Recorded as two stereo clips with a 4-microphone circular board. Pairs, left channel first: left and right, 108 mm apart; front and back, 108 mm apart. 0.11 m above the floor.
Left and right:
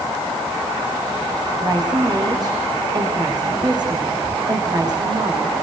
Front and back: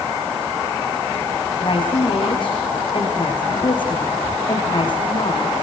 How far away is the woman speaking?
About 7 m.